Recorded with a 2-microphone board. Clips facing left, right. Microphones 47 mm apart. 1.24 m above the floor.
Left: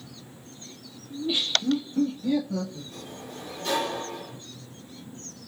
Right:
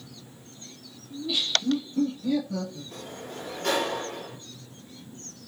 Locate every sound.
1.1 s laughter: 30° left (ahead or behind), 0.7 m; by 2.8 s 10° left (ahead or behind), 1.3 m
2.9 s a sliding door: 60° right (ahead or behind), 1.3 m